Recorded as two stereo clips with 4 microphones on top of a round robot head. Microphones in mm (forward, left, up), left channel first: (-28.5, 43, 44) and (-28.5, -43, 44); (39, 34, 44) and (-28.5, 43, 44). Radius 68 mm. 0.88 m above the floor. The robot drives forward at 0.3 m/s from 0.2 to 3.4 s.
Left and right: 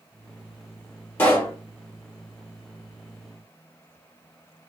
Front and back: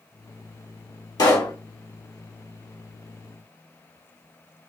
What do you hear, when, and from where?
1.2 s a pop: 20° left, 1.0 m